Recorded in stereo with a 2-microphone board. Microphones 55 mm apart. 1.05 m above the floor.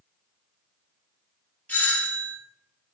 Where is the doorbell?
30° left (ahead or behind), 1.3 m.